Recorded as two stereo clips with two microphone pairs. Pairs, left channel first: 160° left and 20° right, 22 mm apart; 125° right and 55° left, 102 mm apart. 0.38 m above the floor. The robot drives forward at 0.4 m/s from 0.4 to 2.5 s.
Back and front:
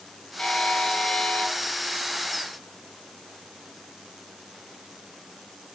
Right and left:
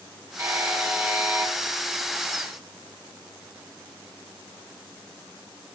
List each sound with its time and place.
0.4 s a buzzer: 120° left, 2.0 m; by 1.5 s 130° left, 2 m